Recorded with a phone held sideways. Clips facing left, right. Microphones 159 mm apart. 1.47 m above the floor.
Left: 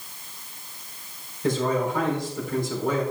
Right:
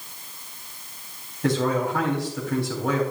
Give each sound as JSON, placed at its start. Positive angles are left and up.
{"t": 1.4, "sound": "a man speaking", "side_deg": -80, "distance_m": 3.5}